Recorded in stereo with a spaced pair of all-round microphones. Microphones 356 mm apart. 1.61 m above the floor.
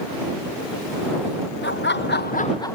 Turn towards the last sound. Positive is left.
turn(degrees=5)  # may be behind; listen again after turning